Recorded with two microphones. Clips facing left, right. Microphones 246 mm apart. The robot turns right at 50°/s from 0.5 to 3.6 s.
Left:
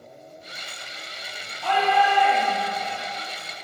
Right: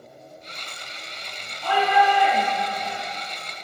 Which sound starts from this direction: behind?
A shout, at 1.6 s.